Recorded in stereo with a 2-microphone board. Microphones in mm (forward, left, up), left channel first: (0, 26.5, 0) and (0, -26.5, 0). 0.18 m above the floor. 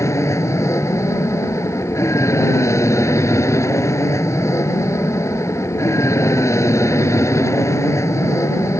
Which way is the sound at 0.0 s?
65° left (ahead or behind).